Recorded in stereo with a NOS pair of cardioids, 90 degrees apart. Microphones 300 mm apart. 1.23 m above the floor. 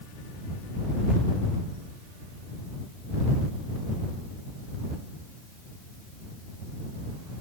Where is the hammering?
I don't hear hammering.